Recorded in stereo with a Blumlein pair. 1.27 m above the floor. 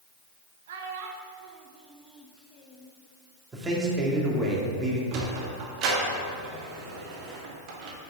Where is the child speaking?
60° right, 1.3 m; by 2.9 s 40° left, 1.0 m.